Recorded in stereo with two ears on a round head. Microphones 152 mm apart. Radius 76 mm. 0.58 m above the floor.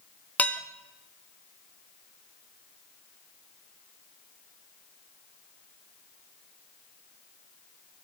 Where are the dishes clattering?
10° left (ahead or behind), 0.5 m.